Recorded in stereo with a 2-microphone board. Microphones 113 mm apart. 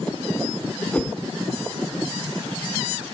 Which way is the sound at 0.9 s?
10° left (ahead or behind).